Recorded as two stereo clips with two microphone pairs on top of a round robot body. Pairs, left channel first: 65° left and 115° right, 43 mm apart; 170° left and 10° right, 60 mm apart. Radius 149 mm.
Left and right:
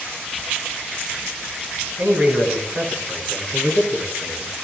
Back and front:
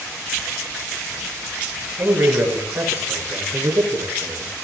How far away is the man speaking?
About 6.5 m.